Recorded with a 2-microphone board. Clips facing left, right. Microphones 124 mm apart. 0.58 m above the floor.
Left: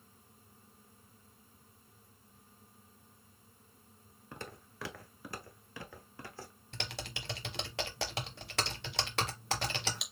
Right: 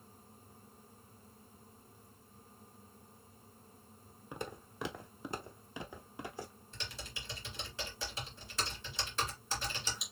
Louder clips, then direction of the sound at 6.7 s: Left 7 dB; 70° left (ahead or behind).